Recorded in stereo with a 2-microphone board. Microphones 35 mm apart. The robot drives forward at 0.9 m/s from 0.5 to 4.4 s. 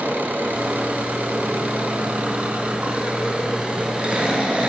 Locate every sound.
0.0 s an engine running: 65° right (ahead or behind), 2.5 m; by 4.7 s 30° right (ahead or behind), 4 m